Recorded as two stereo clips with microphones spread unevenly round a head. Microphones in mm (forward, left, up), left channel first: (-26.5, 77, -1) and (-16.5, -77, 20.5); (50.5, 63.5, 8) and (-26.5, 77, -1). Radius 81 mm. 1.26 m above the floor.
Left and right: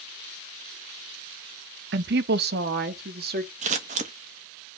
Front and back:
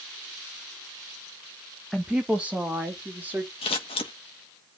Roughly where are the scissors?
Ahead right.